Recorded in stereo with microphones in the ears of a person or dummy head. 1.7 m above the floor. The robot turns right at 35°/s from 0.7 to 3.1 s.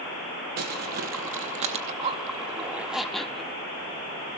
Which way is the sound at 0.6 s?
90° right.